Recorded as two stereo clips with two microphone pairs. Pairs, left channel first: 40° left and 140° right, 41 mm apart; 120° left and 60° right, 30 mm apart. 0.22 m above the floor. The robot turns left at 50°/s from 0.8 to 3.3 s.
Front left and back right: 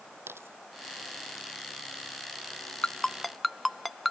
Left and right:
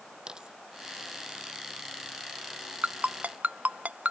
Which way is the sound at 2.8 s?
25° right.